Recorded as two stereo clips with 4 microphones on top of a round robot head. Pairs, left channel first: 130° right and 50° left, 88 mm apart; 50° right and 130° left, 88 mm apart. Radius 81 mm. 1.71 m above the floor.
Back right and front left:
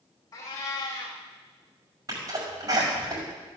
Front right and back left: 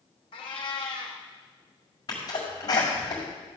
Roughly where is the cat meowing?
Right.